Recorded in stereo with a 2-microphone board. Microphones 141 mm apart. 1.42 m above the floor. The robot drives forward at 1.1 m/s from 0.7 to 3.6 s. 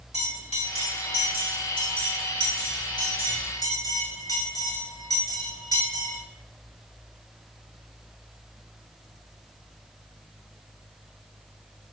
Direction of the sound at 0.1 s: 45° left (ahead or behind).